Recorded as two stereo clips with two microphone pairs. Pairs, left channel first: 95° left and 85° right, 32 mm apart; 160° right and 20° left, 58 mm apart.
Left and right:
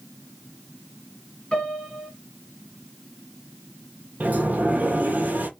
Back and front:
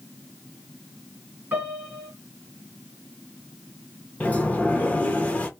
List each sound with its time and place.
1.5 s a piano: 60° left, 2.0 m
4.2 s a sliding door: 95° right, 0.7 m